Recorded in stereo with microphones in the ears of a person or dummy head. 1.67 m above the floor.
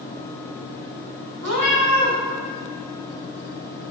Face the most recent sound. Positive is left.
turn(degrees=-60)  # may be behind; listen again after turning